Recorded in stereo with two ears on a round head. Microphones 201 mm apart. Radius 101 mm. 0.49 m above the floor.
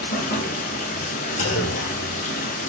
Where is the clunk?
35° left (ahead or behind), 0.8 m.